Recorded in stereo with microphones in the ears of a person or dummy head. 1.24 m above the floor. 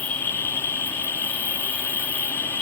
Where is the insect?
10° left (ahead or behind).